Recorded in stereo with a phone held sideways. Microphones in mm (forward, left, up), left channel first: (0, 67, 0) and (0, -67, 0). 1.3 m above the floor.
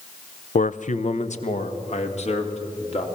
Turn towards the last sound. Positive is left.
turn(degrees=55)  # may be behind; listen again after turning